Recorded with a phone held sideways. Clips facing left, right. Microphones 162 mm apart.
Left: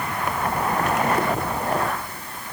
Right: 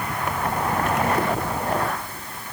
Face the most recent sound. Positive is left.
No sound to turn to.